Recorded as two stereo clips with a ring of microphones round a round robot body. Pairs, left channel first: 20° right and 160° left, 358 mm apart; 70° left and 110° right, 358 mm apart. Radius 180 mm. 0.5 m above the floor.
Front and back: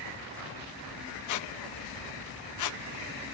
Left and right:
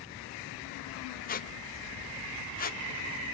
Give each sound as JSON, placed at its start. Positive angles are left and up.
{"t": 1.3, "sound": "a squeak", "azimuth_deg": 5, "distance_m": 0.8}